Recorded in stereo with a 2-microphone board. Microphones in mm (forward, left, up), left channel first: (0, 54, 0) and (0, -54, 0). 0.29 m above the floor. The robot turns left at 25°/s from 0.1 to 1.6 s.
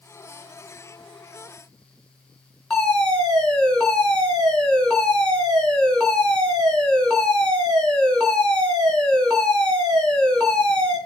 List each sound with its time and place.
2.7 s a fire alarm: 10° left (ahead or behind), 4.5 m